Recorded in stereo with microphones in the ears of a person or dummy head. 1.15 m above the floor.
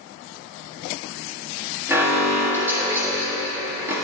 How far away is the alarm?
About 1.5 m.